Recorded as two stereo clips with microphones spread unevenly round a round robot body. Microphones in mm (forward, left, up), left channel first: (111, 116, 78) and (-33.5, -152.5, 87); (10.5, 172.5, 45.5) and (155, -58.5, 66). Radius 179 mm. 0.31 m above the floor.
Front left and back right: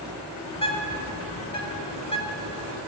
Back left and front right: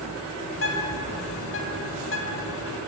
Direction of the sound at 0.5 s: 130° left.